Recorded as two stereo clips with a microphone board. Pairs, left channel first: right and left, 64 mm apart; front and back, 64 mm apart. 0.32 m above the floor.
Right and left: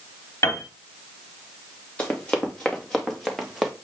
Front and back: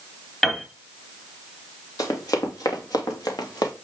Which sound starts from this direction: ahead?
Running footsteps, at 2.0 s.